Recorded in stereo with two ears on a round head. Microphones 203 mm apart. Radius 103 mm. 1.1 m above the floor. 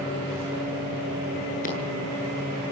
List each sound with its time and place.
1.6 s scissors: 40° left (ahead or behind), 9 m